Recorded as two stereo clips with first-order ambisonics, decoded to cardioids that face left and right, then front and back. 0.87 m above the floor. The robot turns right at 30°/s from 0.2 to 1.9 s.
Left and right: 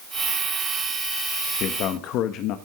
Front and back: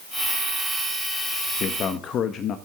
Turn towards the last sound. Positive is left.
turn(degrees=55)